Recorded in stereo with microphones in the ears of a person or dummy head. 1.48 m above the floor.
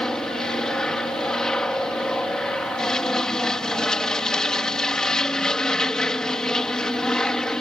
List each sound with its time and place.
0.0 s an aircraft: 5° left (ahead or behind)